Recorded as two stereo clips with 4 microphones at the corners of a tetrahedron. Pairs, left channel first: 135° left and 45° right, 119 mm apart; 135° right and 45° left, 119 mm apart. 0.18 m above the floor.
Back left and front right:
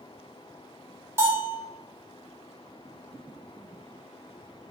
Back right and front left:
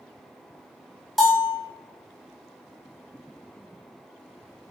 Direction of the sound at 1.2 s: 50° right.